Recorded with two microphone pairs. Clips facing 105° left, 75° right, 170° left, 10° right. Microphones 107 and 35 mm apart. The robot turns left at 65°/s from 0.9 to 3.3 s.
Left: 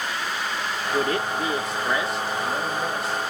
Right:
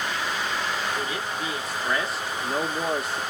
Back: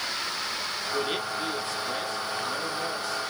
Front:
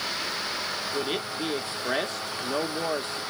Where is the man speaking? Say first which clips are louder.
Left 6 dB, back 2 dB; 90° left, 1.2 m; by 3.2 s 60° right, 1.2 m.